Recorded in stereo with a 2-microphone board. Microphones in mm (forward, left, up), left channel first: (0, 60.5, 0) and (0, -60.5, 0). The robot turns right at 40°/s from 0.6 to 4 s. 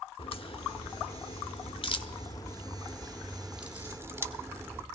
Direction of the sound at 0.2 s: 50° left (ahead or behind).